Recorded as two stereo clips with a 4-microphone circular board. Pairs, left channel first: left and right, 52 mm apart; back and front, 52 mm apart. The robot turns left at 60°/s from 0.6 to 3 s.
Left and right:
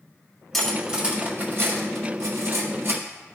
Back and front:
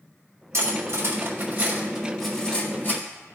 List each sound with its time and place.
0.5 s cutlery clinking: 5° left, 1.7 m; by 3.0 s 140° right, 1.7 m